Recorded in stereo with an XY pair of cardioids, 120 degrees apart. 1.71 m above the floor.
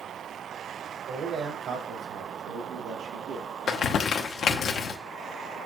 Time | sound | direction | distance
1.1 | a man speaking | 60° right | 1.6 m
3.7 | crumpling | 50° left | 1.0 m